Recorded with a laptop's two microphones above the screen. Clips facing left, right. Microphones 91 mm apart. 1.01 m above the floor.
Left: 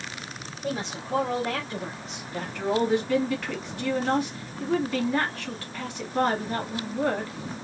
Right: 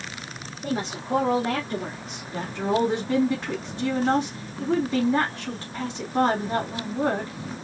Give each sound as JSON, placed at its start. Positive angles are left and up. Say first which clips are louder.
{"t": 0.6, "sound": "a woman speaking", "louder": "right 3 dB", "side_deg": -40, "distance_m": 2.0}
{"t": 2.3, "sound": "a woman speaking", "louder": "right 2 dB", "side_deg": -25, "distance_m": 2.5}